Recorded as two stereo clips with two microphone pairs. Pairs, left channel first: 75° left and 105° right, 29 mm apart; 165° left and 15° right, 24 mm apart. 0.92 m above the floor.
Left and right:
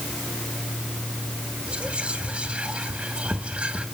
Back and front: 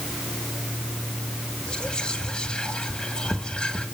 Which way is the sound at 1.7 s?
150° right.